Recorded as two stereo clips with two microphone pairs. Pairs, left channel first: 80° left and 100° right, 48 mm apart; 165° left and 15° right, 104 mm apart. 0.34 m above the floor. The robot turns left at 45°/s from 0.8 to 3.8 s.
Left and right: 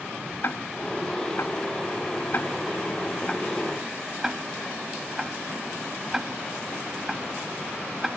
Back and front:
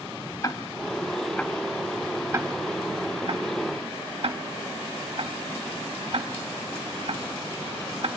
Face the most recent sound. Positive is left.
turn(degrees=-20)